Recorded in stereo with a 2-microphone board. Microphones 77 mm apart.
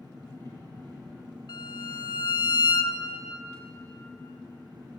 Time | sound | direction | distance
0.0 | an engine running | 60° right (ahead or behind) | 4 m
1.5 | a violin | 65° left (ahead or behind) | 0.6 m